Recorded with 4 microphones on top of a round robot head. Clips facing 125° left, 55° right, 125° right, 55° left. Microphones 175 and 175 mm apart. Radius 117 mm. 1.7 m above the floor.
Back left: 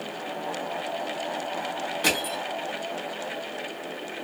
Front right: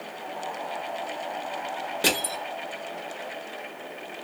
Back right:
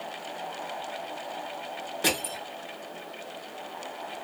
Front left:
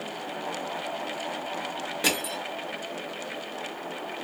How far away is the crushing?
About 1.0 m.